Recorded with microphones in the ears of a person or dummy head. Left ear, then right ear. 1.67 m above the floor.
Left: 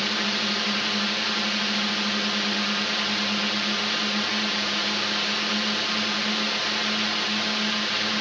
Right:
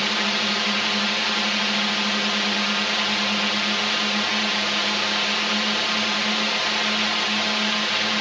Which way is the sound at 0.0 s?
25° right (ahead or behind).